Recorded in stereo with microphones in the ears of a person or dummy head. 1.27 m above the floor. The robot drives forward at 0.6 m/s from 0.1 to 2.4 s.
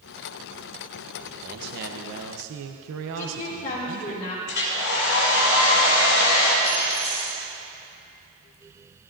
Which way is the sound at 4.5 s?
60° left (ahead or behind).